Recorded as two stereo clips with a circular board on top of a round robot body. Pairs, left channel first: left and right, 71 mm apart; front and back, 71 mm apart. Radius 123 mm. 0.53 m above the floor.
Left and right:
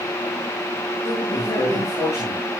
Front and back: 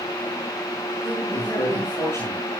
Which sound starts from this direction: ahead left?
A man speaking, at 1.0 s.